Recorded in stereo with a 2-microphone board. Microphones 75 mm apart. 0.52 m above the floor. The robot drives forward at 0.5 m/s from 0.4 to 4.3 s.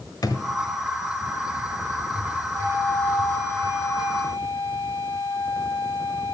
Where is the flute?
30° left (ahead or behind), 3 m; by 6.3 s 20° left (ahead or behind), 3.5 m.